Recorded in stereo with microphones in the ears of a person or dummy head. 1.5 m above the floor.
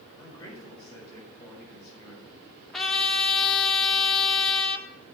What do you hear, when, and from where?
0.2 s a man speaking: 25° left (ahead or behind), 6 m
2.7 s a trumpet: centre (ahead or behind), 1.0 m